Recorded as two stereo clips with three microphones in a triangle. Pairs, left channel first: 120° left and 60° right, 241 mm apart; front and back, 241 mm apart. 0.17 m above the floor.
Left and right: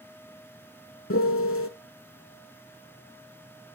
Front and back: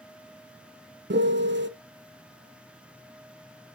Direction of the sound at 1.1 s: 140° left.